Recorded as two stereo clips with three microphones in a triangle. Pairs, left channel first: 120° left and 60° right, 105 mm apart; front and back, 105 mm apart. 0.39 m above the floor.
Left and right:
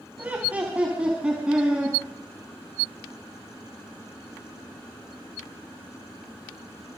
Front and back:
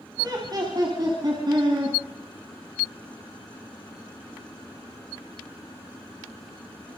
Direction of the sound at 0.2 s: 130° right.